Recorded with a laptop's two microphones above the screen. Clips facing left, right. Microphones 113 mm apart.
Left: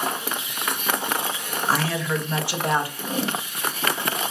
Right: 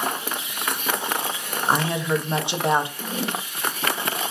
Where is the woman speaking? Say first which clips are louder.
Right 2 dB; 20° right (ahead or behind), 0.7 m.